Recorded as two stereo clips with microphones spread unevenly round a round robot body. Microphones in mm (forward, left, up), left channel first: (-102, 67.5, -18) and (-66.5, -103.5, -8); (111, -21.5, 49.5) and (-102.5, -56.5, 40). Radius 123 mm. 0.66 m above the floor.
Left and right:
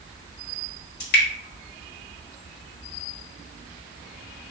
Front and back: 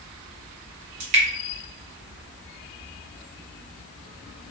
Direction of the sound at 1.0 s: 130° left.